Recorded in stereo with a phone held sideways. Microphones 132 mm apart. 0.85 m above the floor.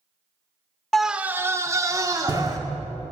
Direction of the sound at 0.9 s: 5° left (ahead or behind).